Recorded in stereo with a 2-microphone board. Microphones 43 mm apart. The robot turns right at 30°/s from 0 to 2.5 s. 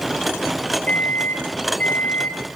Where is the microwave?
70° left, 0.7 m; by 2.4 s 115° left, 0.7 m.